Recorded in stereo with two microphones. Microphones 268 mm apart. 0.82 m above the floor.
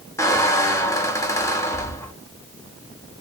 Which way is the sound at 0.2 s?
10° left (ahead or behind).